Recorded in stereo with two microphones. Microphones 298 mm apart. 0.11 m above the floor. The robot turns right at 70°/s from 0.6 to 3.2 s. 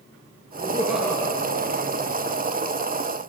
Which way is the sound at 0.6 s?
30° right.